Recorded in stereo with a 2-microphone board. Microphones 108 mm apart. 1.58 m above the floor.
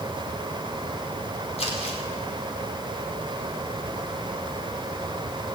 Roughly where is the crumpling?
Left.